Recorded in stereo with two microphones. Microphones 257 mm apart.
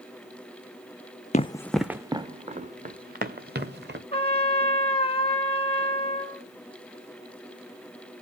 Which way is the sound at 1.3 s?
25° left (ahead or behind).